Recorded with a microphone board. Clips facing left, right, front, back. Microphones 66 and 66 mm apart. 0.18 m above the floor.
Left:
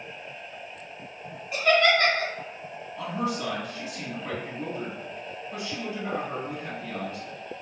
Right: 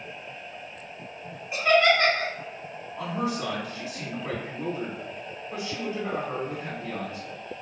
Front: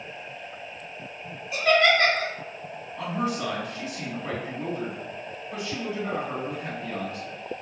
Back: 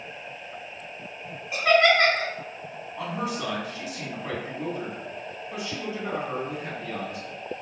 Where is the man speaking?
105° right, 1.4 m.